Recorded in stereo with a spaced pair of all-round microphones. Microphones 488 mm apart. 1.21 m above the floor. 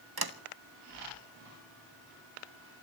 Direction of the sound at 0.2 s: 50° right (ahead or behind).